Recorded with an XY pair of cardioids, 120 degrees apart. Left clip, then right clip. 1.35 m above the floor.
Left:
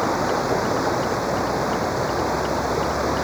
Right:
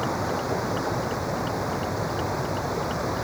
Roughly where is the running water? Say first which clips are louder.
Left 6 dB; ahead left.